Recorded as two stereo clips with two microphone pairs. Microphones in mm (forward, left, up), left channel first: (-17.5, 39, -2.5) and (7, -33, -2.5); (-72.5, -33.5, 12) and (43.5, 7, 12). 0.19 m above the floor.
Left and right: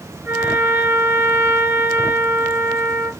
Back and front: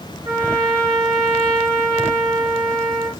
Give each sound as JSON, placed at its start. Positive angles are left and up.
{"t": 0.2, "sound": "a trumpet", "azimuth_deg": -30, "distance_m": 1.9}